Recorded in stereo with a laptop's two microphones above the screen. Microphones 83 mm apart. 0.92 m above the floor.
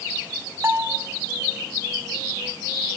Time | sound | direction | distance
0.6 | a bell | 25° right (ahead or behind) | 1.0 m